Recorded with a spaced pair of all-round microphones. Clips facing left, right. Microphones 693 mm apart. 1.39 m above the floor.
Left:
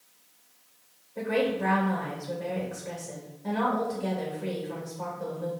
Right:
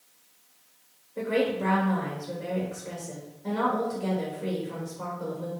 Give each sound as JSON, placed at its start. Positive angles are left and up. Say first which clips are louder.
{"t": 1.2, "sound": "a woman speaking", "louder": "right 1 dB", "side_deg": 20, "distance_m": 2.5}